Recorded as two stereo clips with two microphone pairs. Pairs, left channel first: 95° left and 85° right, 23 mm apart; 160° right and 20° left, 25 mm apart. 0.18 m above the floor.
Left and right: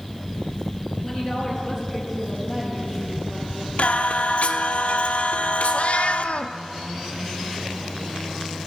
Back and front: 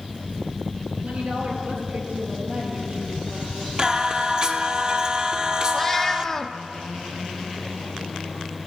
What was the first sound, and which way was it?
A woman speaking, 5° left.